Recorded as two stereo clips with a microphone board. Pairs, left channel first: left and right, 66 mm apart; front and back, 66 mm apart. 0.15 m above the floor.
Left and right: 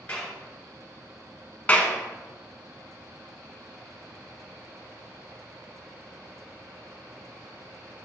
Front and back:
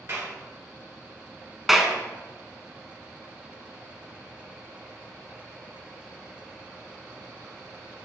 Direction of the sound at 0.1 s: 155° left.